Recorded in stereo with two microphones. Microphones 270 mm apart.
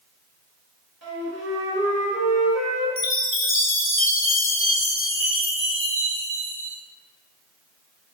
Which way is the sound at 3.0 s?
50° left (ahead or behind).